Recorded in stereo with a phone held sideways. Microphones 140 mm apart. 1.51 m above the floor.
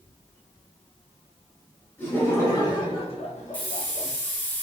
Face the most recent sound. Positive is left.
turn(degrees=10)  # may be behind; listen again after turning